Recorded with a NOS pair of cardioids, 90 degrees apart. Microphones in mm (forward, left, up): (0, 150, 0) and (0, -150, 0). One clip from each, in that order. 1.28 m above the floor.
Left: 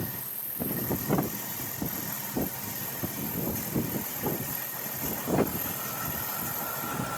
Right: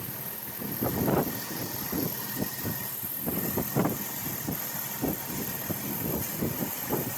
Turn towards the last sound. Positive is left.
No sound to turn to.